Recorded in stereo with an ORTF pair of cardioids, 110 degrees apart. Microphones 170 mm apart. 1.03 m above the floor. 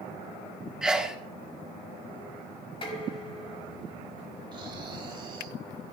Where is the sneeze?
5° right, 1.7 m.